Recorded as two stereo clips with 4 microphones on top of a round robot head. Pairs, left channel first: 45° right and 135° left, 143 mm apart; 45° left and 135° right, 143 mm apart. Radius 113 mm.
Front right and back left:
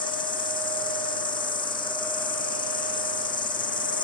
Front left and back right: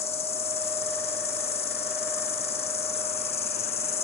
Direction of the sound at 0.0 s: 5° left.